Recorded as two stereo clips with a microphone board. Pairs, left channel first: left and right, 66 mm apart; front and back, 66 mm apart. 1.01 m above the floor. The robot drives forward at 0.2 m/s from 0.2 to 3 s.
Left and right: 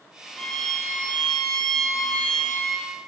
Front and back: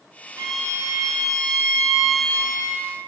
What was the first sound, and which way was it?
A violin, 175° left.